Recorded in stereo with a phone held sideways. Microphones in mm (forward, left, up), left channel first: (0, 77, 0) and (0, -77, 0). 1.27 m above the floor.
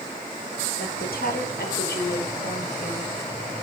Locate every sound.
0.8 s a woman speaking: 85° left, 5.5 m; by 3.1 s 75° left (ahead or behind), 6 m